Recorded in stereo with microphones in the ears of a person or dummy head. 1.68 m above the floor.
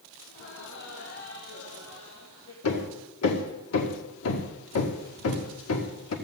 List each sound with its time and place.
0.3 s laughter: 65° left (ahead or behind), 3.5 m; by 2.5 s 45° left (ahead or behind), 2.5 m
2.6 s hammering: 85° left, 1.9 m